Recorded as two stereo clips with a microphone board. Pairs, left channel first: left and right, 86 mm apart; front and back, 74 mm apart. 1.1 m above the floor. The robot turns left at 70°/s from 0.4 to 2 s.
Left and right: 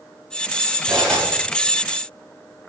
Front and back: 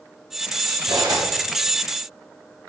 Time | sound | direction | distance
0.9 | cutlery clinking | 175° right | 3.5 m